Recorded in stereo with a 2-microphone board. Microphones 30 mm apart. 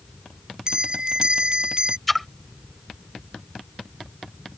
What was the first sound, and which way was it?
A bell, 30° right (ahead or behind).